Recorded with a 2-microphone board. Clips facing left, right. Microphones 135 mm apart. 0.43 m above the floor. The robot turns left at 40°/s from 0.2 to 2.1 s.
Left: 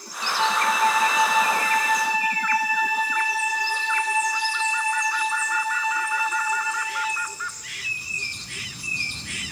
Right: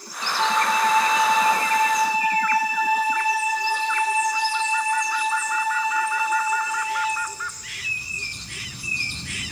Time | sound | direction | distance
0.4 | a flute | 5° right (ahead or behind) | 0.6 m